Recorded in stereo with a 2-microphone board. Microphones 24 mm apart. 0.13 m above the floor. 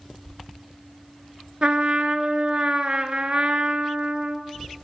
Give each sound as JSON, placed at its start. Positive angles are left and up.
{"t": 1.6, "sound": "a trumpet", "side_deg": -50, "distance_m": 0.5}